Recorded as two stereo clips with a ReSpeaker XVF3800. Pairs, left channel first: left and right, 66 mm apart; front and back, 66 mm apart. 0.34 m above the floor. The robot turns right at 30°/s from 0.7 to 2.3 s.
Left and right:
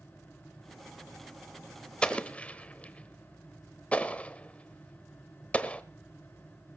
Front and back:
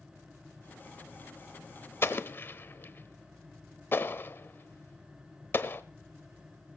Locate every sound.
2.0 s an explosion: 20° left, 0.9 m; by 5.8 s 30° left, 0.9 m